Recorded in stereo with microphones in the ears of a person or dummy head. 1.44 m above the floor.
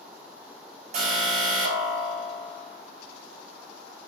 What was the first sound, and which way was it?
An alarm, 45° right (ahead or behind).